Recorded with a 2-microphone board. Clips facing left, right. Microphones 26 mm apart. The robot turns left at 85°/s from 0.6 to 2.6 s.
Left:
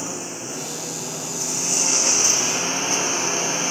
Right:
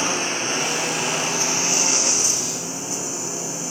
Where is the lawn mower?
60° right; by 3.7 s 130° left.